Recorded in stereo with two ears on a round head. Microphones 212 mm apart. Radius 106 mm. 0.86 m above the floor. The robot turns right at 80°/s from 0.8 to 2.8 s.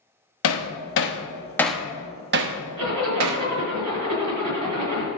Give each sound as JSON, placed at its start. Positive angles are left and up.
{"t": 0.4, "sound": "hammering", "side_deg": 65, "distance_m": 0.9}
{"t": 2.8, "sound": "a zipper", "side_deg": -80, "distance_m": 3.5}